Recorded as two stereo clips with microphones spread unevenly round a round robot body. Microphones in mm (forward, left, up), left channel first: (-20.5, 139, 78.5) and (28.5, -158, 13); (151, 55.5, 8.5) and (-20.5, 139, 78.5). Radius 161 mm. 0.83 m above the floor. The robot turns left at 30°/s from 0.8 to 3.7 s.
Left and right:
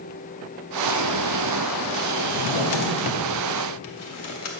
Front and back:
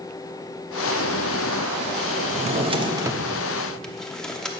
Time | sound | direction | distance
2.3 | a drawer | 105° left | 1.0 m